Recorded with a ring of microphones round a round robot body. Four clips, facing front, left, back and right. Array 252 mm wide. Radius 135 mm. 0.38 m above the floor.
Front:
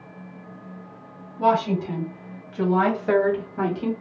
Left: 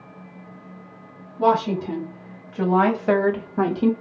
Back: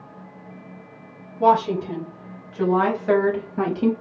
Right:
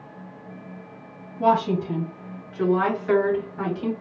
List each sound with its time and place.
1.4 s a woman speaking: 65° left, 3.5 m; by 3.9 s 135° left, 1.4 m